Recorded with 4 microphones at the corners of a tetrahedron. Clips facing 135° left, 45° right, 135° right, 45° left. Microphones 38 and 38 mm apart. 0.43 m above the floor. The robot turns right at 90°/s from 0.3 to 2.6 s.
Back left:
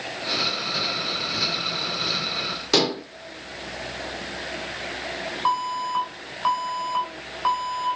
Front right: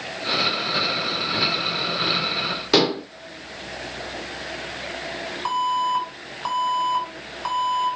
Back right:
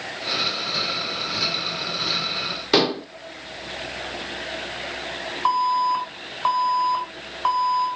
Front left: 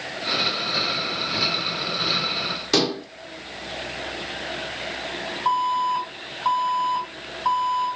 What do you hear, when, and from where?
2.7 s dishes clattering: 95° right, 0.6 m
5.5 s an alarm: 155° right, 5.5 m